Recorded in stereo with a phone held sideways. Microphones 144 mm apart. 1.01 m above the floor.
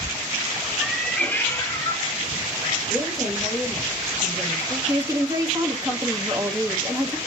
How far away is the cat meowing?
About 0.6 m.